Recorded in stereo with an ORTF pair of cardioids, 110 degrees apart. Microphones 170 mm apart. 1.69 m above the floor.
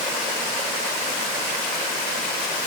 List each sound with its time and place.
Only background noise.